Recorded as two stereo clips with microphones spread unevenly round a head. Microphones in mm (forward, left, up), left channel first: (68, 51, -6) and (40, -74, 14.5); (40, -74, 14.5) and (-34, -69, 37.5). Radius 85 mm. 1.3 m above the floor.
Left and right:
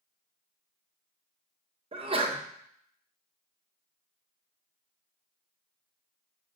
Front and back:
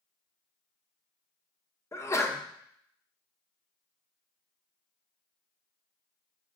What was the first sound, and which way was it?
A sneeze, 55° right.